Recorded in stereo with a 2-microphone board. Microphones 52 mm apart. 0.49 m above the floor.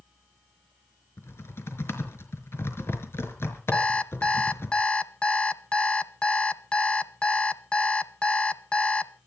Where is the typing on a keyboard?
55° left (ahead or behind), 4.5 m.